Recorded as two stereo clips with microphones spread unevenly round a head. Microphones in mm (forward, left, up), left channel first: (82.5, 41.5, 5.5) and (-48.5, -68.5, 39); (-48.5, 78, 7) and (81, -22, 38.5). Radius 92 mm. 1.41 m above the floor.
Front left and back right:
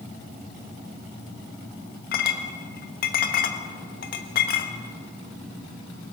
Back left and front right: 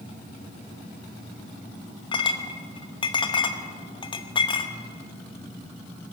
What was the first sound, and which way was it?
A clink, 80° left.